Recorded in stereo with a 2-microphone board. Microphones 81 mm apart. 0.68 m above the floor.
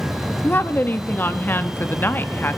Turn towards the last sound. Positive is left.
turn(degrees=25)  # may be behind; listen again after turning